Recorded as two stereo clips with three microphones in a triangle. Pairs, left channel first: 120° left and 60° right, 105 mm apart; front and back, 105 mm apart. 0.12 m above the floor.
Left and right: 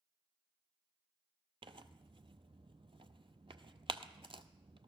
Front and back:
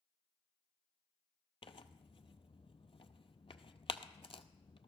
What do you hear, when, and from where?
1.6 s tearing paper: 30° right, 0.6 m